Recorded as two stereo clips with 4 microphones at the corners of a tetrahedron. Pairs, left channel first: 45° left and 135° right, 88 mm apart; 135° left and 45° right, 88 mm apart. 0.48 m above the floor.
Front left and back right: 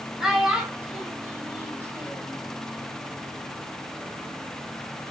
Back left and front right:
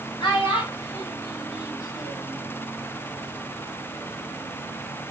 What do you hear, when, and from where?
0.2 s a child speaking: 145° left, 1.9 m; by 2.4 s straight behind, 1.4 m